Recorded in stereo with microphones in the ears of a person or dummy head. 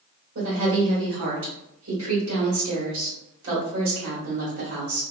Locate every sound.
0.3 s a woman speaking: 65° right (ahead or behind), 1.5 m